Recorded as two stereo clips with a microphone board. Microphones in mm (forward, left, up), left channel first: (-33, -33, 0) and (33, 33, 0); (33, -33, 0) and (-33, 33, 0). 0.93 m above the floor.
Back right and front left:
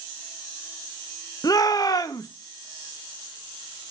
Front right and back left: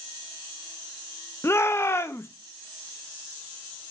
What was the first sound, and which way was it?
A shout, 100° right.